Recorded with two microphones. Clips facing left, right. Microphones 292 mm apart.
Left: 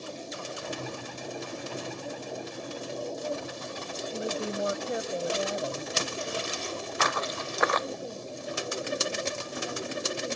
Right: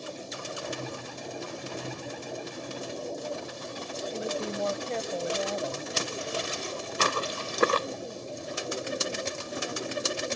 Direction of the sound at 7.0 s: 35° right (ahead or behind).